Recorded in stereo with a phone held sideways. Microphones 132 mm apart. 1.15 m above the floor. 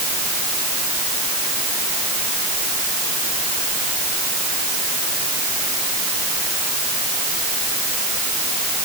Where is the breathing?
No breathing in this recording.